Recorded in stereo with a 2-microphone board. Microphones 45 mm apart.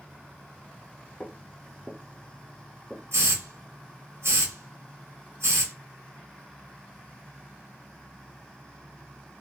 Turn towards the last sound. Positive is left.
turn(degrees=-75)  # may be behind; listen again after turning